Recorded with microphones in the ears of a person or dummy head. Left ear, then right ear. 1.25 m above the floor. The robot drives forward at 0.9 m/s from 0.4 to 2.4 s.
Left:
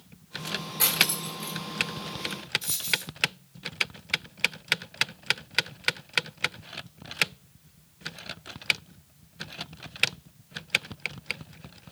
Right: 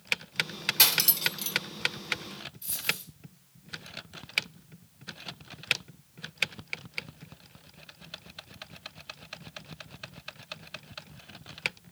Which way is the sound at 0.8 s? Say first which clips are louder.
Right 1 dB; 70° right (ahead or behind).